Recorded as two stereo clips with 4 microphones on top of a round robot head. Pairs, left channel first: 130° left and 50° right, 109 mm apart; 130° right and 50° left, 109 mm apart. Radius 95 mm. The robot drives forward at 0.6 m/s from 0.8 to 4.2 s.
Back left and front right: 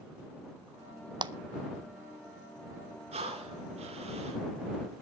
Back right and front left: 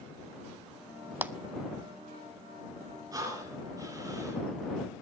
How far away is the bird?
No bird in this recording.